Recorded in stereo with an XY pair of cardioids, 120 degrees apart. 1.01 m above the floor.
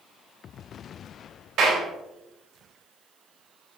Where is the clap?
60° right, 3.5 m.